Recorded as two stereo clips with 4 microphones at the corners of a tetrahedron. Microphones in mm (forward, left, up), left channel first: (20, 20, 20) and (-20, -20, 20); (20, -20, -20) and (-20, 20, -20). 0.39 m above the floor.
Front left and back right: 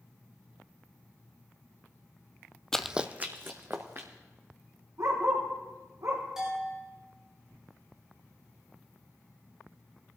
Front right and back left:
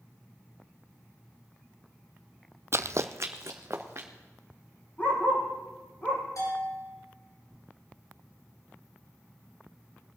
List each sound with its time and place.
2.7 s running footsteps: 120° left, 0.5 m; by 4.1 s straight behind, 2.5 m
5.0 s a dog barking: 110° right, 4.5 m
6.4 s a bell: 55° right, 6 m